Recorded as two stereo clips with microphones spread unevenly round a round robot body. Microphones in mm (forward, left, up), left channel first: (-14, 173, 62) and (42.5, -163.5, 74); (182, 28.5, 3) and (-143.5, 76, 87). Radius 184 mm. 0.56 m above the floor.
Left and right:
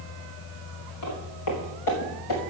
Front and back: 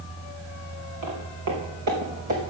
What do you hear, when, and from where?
1.0 s footsteps: 140° left, 4 m; by 2.5 s 130° left, 4 m